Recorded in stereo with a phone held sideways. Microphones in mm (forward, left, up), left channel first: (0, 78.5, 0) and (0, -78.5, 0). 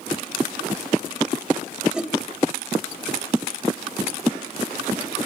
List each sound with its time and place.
1.9 s a whoosh: 5° right (ahead or behind), 0.9 m